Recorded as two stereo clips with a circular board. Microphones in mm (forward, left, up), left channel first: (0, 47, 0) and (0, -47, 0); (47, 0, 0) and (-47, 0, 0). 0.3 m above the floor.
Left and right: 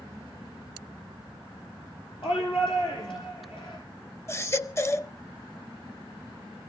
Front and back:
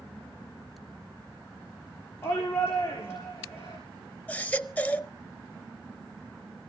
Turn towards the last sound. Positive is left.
turn(degrees=60)